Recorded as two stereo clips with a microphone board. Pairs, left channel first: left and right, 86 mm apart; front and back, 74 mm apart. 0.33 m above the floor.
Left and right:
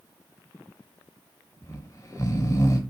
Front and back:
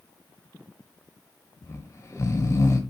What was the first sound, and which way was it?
Snoring, 40° left.